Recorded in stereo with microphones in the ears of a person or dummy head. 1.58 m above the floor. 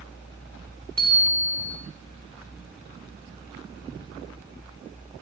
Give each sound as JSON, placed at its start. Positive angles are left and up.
{"t": 1.0, "sound": "a bicycle bell", "side_deg": -25, "distance_m": 4.0}